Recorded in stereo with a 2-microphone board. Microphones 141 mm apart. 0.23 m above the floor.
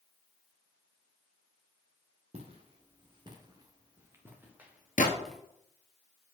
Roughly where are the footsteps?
Right.